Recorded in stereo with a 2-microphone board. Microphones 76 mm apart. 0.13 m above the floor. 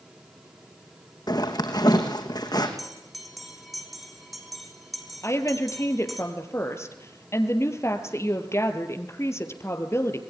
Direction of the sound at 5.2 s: 40° left (ahead or behind).